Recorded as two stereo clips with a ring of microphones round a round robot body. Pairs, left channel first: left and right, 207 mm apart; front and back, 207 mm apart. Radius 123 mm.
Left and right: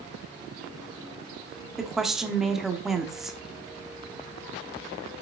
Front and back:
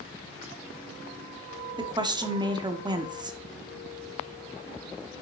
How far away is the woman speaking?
About 1.1 m.